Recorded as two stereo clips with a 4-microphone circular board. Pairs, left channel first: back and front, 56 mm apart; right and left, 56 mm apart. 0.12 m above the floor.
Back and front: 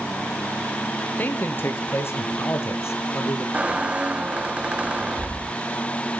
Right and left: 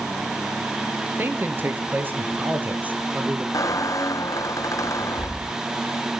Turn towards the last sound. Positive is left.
turn(degrees=-70)